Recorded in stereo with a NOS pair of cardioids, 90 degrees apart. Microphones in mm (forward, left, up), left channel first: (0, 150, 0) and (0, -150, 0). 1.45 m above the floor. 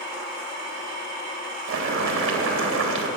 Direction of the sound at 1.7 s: 70° right.